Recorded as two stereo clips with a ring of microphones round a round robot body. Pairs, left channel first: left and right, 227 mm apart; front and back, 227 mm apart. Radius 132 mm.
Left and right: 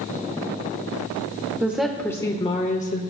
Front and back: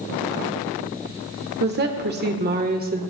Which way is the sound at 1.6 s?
165° right.